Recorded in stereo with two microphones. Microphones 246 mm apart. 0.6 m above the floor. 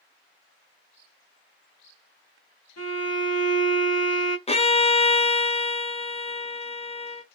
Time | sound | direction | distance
2.8 | a violin | 85° left | 1.4 m
4.5 | a violin | 25° left (ahead or behind) | 0.7 m